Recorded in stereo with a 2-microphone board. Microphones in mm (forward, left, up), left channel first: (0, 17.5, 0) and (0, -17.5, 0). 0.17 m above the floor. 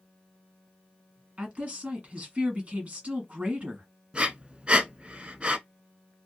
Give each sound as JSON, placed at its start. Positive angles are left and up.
{"t": 1.4, "sound": "a woman speaking", "side_deg": -35, "distance_m": 1.3}
{"t": 4.1, "sound": "breathing", "side_deg": -30, "distance_m": 0.5}